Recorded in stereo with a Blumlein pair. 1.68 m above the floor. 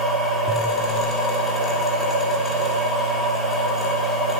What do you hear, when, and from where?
0.0 s a machine running: 10° left, 1.4 m